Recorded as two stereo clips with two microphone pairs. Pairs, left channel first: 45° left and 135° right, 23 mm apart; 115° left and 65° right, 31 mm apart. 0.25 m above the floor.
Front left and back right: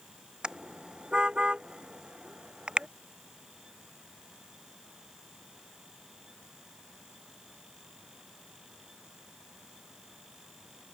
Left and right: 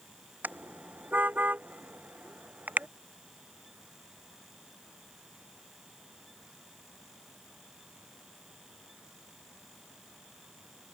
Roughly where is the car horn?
Right.